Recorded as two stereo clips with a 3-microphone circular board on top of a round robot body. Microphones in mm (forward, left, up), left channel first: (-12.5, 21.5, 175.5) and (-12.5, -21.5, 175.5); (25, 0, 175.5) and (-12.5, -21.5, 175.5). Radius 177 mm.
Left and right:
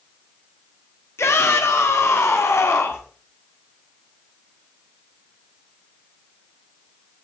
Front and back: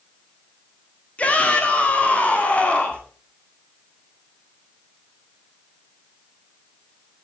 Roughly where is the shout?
Left.